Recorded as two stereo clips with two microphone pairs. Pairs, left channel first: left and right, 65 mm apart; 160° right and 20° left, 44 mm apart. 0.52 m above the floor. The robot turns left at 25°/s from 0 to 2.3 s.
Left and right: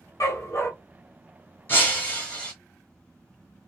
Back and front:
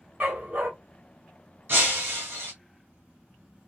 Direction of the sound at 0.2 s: 70° left.